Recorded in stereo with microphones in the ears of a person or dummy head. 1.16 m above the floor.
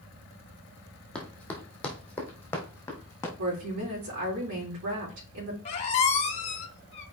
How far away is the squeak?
About 1.4 m.